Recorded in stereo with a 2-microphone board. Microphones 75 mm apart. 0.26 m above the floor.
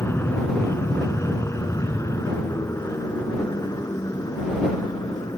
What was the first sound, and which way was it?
An aircraft, 30° left (ahead or behind).